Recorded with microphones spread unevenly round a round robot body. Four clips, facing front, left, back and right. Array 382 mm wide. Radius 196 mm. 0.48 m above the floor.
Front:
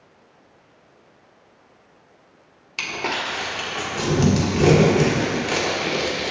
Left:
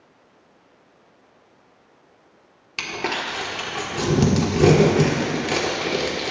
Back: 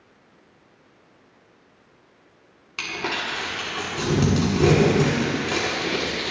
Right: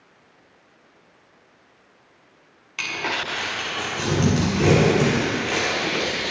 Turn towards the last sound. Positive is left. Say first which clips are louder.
# left 1 dB, front 2 dB
turn(degrees=100)